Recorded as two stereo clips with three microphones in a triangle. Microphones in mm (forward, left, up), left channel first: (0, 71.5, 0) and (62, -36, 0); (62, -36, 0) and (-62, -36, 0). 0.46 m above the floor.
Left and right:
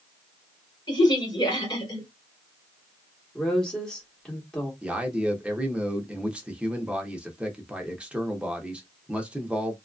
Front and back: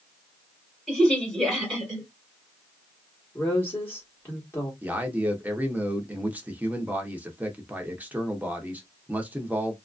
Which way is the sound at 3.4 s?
45° left.